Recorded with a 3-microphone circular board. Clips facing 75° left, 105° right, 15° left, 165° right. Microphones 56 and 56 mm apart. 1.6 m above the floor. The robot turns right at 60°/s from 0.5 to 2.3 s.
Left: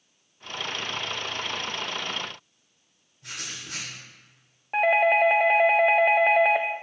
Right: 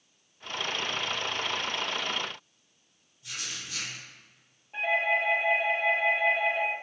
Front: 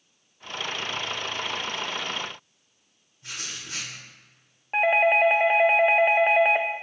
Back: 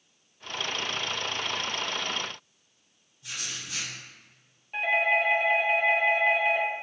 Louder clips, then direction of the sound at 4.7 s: Left 7 dB, front 5 dB; 60° left.